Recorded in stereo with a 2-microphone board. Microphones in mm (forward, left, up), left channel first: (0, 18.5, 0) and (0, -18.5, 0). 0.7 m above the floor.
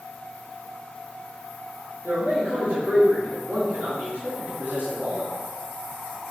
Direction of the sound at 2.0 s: 70° right (ahead or behind).